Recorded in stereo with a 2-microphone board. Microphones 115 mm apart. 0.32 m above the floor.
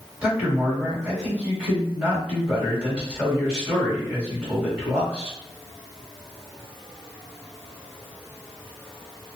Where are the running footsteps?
No running footsteps in this recording.